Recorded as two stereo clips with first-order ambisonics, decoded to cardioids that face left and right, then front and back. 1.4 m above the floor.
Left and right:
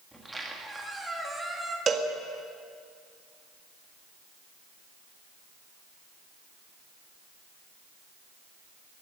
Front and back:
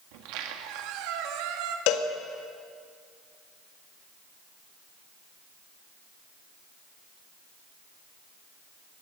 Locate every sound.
0.1 s a squeak: 175° right, 1.7 m
1.9 s a cowbell: 20° right, 1.6 m